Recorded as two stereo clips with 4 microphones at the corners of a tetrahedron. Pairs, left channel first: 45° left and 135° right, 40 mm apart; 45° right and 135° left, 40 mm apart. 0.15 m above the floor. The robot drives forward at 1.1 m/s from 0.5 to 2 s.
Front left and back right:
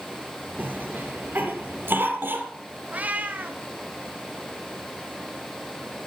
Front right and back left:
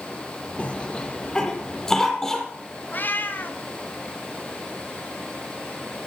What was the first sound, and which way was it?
A cough, 105° right.